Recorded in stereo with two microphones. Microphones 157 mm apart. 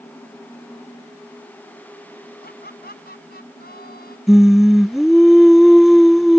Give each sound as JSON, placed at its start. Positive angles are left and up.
{"t": 2.4, "sound": "laughter", "side_deg": 85}
{"t": 4.3, "sound": "singing", "side_deg": 0}